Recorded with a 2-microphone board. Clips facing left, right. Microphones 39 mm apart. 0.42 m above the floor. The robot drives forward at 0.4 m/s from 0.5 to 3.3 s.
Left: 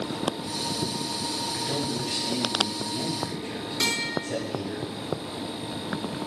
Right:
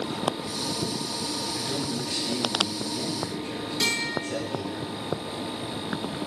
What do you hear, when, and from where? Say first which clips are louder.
1.5 s a man speaking: left 1 dB; 45° left (ahead or behind), 1.3 m; by 4.8 s 35° left (ahead or behind), 1.6 m
3.8 s a guitar: even; 30° left (ahead or behind), 1.9 m